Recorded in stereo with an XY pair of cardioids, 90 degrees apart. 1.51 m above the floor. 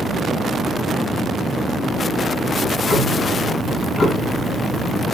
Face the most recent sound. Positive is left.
turn(degrees=55)